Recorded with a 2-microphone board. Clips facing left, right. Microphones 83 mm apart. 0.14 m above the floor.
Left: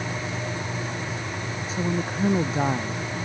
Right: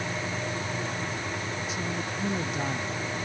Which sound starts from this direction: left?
A woman speaking, at 1.7 s.